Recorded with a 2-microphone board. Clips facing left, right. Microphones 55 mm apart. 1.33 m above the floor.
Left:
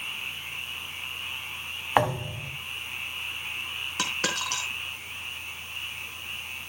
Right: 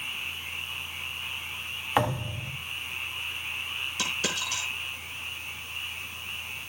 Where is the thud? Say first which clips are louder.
Left 3 dB; 20° left (ahead or behind), 2.5 m.